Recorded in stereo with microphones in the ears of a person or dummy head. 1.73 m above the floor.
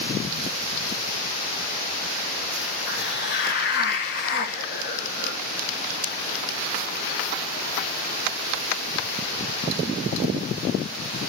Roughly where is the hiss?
Left.